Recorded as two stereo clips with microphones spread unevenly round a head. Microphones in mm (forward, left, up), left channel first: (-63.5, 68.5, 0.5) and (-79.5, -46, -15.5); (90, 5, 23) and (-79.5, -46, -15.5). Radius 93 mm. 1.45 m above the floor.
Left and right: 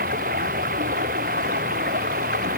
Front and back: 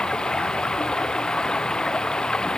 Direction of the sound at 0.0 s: 70° right.